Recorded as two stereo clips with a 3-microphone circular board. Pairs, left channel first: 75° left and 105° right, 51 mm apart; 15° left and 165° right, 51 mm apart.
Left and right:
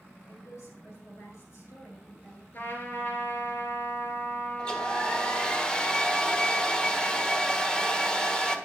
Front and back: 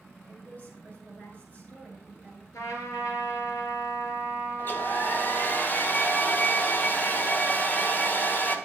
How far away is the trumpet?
About 3.5 m.